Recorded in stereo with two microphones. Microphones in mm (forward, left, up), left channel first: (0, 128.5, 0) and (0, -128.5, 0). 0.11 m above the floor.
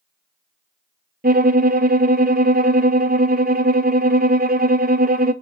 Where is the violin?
35° right (ahead or behind), 0.8 m.